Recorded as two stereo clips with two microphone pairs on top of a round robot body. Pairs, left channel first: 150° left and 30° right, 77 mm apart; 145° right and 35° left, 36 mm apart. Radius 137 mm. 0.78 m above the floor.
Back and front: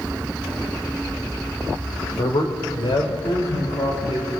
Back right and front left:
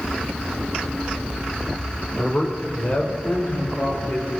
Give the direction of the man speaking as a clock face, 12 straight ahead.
7 o'clock.